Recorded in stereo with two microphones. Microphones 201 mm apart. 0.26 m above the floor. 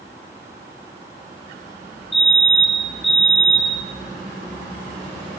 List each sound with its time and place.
2.1 s a fire alarm: 65° left (ahead or behind), 5.5 m